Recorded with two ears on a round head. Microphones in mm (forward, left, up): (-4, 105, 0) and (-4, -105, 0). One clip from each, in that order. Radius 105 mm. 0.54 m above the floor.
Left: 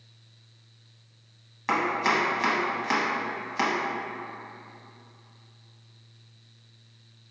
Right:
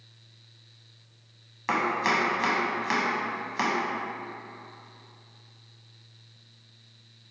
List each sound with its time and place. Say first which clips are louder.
1.7 s chopping: left 1 dB; centre (ahead or behind), 0.6 m